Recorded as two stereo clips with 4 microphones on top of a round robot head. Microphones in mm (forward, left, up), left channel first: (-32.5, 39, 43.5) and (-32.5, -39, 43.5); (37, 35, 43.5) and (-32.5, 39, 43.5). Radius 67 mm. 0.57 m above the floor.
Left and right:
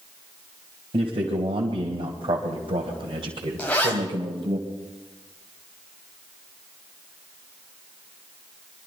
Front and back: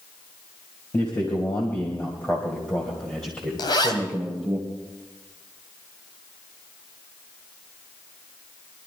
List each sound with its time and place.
0.9 s a man speaking: 60° right, 3 m; by 4.6 s 100° right, 2.5 m
3.6 s a zipper: 10° left, 3 m